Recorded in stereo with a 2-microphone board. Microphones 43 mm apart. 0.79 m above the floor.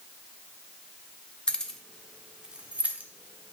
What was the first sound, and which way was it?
Keys jangling, 20° left (ahead or behind).